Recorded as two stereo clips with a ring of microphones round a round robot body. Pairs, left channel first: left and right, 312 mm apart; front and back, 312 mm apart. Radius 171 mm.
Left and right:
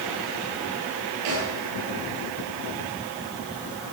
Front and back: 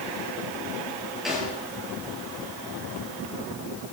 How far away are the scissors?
No scissors in this recording.